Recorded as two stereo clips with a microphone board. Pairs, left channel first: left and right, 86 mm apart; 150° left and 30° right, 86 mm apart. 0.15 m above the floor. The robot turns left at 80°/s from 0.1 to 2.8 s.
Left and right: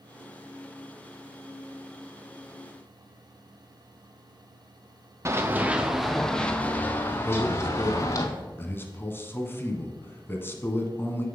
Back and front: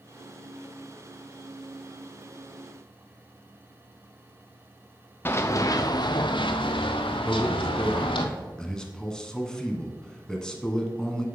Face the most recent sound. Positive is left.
turn(degrees=75)